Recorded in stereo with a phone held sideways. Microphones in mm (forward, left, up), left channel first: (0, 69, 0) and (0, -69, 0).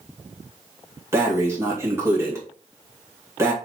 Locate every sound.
1.1 s breathing: 20° right (ahead or behind), 2.0 m